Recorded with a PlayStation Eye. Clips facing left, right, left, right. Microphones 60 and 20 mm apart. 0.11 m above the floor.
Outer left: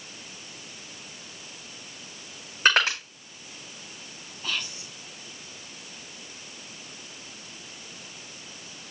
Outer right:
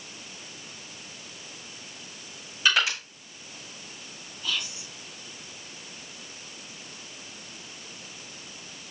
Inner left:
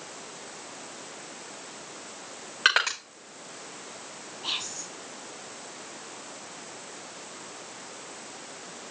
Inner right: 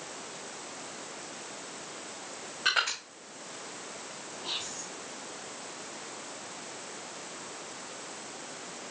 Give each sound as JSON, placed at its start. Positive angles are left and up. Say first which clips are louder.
{"t": 2.6, "sound": "crushing", "louder": "outer left 3 dB, inner left 5 dB", "side_deg": 45, "distance_m": 5.5}
{"t": 4.4, "sound": "whispering", "louder": "even, inner left 4 dB", "side_deg": 40, "distance_m": 3.0}